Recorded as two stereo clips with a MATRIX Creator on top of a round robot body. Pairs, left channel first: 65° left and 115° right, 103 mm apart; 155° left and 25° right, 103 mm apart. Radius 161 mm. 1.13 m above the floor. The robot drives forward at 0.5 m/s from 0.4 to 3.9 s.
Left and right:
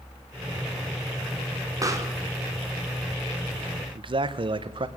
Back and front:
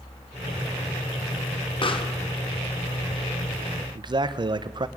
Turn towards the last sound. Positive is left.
turn(degrees=-70)